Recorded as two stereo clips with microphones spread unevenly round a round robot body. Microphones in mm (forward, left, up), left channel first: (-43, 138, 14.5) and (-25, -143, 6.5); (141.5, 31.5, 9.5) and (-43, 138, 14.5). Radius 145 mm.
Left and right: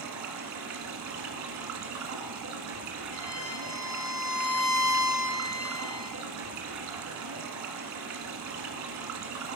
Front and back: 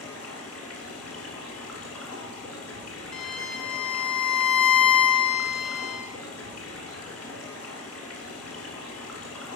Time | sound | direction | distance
0.0 | running water | 115° right | 1.2 m
3.1 | a violin | 85° left | 2.5 m